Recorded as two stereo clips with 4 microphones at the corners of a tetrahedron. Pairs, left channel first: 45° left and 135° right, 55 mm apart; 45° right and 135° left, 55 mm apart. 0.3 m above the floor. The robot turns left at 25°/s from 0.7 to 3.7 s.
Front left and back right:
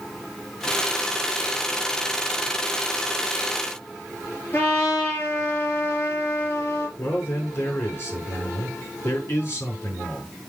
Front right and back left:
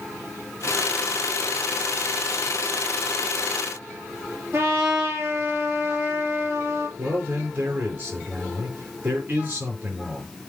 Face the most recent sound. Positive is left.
turn(degrees=95)